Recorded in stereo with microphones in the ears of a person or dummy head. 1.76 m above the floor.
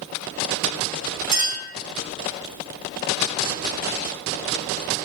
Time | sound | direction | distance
1.3 | a clink | 50° right (ahead or behind) | 2.5 m